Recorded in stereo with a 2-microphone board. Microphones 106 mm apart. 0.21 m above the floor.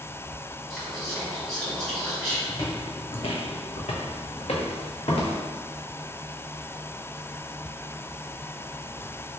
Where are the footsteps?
30° left (ahead or behind), 0.7 m; by 5.4 s 65° left (ahead or behind), 1.4 m.